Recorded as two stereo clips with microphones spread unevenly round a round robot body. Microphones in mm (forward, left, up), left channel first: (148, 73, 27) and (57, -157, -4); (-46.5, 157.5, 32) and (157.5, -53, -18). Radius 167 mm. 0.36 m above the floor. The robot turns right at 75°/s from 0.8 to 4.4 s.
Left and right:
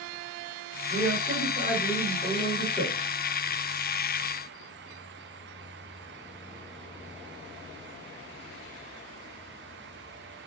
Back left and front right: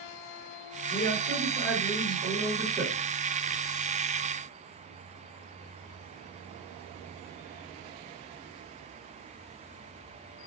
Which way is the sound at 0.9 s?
170° right.